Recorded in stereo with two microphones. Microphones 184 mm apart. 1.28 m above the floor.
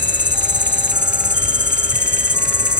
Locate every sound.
0.0 s an insect: 90° right